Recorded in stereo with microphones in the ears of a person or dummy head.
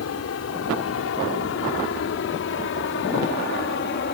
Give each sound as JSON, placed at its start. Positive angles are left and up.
{"t": 0.0, "sound": "an aircraft", "side_deg": 75}